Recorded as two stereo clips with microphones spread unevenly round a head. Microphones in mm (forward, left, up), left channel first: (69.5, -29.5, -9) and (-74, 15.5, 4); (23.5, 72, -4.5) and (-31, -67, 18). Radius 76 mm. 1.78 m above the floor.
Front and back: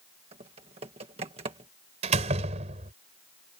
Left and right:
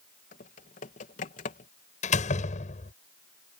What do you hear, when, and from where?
0.3 s typing on a keyboard: 110° left
2.0 s a door slam: 115° left